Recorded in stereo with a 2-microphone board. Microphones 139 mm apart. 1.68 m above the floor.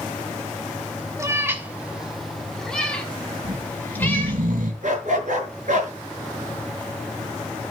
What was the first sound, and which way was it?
A cat meowing, 20° right (ahead or behind).